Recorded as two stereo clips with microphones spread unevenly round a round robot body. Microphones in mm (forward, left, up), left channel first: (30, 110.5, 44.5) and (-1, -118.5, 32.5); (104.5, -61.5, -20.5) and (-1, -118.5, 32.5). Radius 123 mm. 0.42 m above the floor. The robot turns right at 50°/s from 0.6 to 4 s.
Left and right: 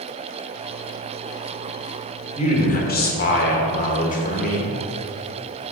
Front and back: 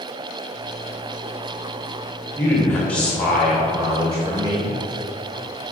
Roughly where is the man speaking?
Ahead left.